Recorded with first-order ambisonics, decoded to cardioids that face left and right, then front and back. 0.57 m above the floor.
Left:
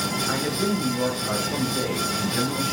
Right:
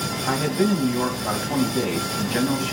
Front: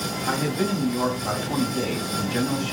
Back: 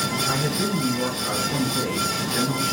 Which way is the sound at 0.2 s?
60° right.